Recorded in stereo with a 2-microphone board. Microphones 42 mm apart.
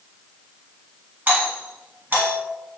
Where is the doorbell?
50° right (ahead or behind), 1.9 m.